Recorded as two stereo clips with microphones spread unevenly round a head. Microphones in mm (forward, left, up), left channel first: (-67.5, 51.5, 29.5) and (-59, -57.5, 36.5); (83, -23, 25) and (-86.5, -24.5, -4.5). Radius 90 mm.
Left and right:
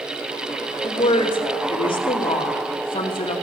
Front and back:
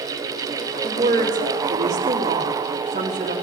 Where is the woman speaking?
130° left, 1.9 m.